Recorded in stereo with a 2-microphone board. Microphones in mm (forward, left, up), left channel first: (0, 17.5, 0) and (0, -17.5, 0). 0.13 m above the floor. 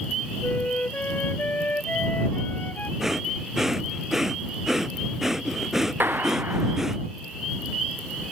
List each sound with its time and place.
0.4 s a flute: 55° left (ahead or behind)
3.0 s breathing: 10° right (ahead or behind)
6.0 s a clap: 80° right